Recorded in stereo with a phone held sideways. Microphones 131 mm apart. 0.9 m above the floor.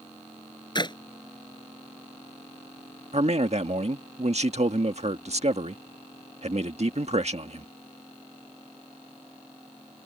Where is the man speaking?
55° right (ahead or behind).